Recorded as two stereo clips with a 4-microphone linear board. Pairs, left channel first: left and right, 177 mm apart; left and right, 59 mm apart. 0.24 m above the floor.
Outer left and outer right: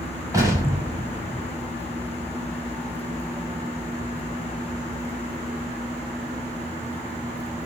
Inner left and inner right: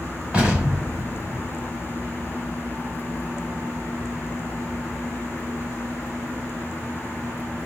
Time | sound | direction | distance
0.3 | an explosion | 20° right (ahead or behind) | 1.2 m